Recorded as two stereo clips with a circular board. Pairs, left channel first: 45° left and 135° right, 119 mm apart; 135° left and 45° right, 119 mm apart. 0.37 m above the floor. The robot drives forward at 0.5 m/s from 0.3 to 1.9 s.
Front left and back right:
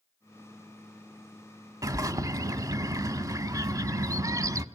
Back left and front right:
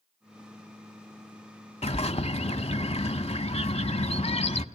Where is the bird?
165° left, 0.8 m.